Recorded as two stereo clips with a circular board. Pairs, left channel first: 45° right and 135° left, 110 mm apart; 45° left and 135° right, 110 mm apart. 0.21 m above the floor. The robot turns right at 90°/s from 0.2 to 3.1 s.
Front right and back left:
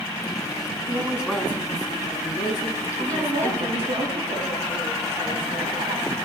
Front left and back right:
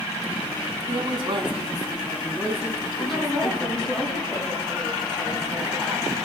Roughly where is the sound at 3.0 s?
Behind left.